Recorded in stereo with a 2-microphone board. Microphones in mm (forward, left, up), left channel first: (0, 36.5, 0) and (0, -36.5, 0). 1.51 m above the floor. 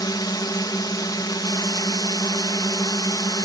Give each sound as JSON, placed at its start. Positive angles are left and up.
{"t": 0.0, "sound": "a drone", "side_deg": 65}